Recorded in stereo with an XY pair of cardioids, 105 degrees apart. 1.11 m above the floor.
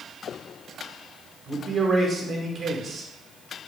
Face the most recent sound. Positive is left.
turn(degrees=-45)